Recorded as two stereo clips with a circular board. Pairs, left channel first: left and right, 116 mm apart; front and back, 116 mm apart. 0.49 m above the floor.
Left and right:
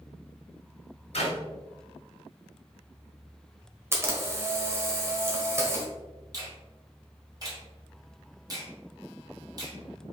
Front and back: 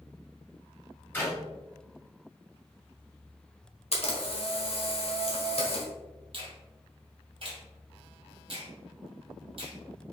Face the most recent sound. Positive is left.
turn(degrees=-145)